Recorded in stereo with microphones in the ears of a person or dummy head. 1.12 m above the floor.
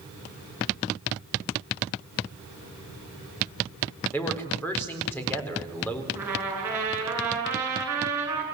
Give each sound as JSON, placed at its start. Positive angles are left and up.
{"t": 4.1, "sound": "a man speaking", "side_deg": 5, "distance_m": 4.5}
{"t": 6.2, "sound": "a trumpet", "side_deg": -15, "distance_m": 9.0}